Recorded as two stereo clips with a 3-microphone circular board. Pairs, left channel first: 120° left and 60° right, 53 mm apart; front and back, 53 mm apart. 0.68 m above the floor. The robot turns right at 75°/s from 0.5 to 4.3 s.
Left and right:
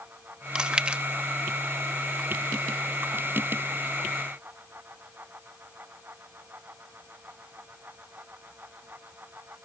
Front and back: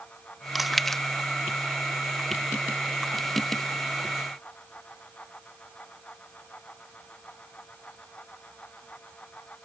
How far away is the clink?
I don't hear a clink.